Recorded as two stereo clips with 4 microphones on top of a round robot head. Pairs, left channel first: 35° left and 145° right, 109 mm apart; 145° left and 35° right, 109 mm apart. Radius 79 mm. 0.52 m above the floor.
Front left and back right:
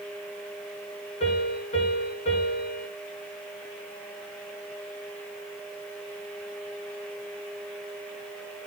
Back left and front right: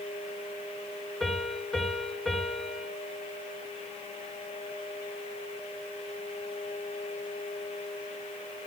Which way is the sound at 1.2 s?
50° left.